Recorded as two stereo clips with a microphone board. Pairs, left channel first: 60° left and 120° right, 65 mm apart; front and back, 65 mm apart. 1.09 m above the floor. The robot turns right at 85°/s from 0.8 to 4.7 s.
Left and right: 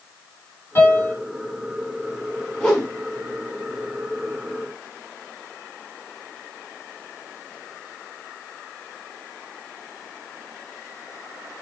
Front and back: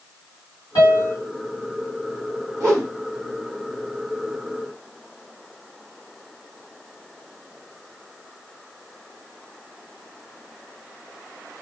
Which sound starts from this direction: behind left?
A whoosh, at 2.6 s.